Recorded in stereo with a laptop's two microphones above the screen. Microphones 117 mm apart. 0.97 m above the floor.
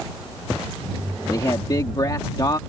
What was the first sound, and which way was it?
A man speaking, 40° left (ahead or behind).